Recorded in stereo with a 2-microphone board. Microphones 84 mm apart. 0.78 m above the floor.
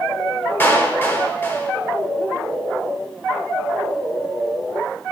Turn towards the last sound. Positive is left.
turn(degrees=25)  # may be behind; listen again after turning